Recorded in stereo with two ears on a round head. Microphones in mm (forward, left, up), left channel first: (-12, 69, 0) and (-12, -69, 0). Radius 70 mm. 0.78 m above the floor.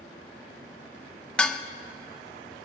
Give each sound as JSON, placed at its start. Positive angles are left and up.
{"t": 1.4, "sound": "dishes clattering", "side_deg": 5, "distance_m": 0.5}